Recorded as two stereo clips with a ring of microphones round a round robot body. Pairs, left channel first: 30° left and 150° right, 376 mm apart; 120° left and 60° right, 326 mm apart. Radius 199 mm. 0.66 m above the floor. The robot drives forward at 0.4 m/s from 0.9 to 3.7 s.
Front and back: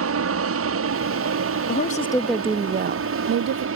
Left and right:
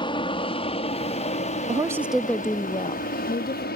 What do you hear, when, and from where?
0.0 s an aircraft: 170° right; by 3.8 s 170° left
1.7 s a woman speaking: 5° left; by 3.7 s straight behind